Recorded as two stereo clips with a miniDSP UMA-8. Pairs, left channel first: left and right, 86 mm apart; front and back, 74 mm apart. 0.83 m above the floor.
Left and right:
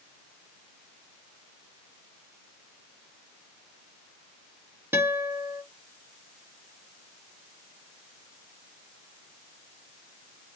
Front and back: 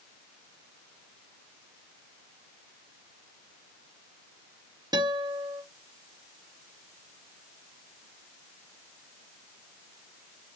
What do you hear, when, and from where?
4.9 s a guitar: 155° right, 1.0 m